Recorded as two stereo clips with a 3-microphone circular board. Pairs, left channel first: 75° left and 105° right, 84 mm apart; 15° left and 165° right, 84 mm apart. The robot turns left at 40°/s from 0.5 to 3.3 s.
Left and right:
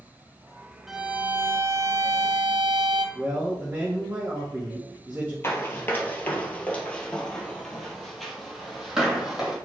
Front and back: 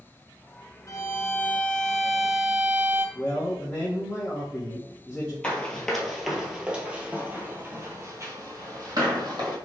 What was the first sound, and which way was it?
A violin, 20° right.